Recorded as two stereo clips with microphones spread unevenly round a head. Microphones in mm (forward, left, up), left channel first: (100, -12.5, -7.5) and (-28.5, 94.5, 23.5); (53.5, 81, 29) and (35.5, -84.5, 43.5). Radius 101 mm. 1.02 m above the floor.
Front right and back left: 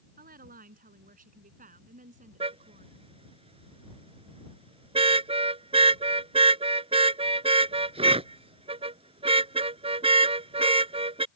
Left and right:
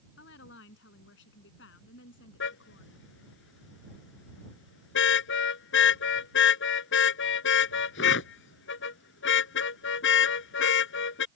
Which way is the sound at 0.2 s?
105° left.